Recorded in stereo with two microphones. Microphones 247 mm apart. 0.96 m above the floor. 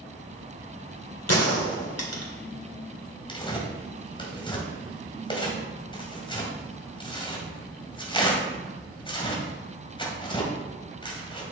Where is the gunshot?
80° left, 1.9 m.